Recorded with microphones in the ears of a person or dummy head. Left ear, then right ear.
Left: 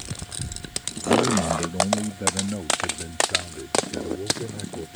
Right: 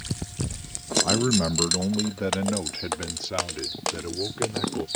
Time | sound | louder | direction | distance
1.0 | a man speaking | left 8 dB | 40° right (ahead or behind) | ?